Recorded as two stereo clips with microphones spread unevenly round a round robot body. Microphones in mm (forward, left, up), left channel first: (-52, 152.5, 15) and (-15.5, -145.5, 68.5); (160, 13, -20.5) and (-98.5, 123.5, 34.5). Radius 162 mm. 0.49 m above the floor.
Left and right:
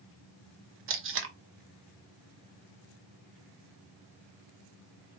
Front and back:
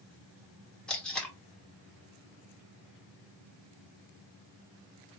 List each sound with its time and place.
0.9 s tape being pulled: 85° right, 0.9 m